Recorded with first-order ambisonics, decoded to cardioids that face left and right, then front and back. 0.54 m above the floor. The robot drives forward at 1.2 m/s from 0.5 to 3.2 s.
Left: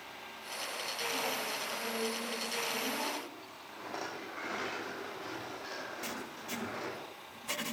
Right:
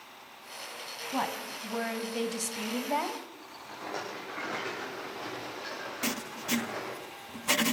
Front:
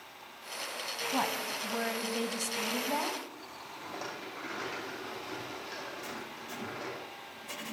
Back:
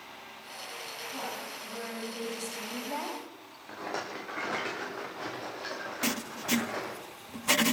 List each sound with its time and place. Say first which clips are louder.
1.1 s a woman speaking: right 6 dB, front 7 dB; 45° right, 4 m; by 3.2 s 85° right, 3 m
3.7 s a rattle: right 3 dB, back 5 dB; 165° right, 8.5 m
6.0 s writing: right 7 dB, back 8 dB; 145° right, 0.5 m